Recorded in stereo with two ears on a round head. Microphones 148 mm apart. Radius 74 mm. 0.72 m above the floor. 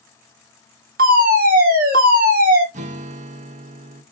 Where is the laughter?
I don't hear laughter.